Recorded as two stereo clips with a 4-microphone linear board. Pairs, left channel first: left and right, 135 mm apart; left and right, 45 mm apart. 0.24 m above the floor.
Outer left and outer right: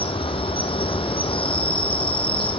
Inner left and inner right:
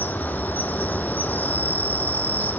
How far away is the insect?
About 0.9 m.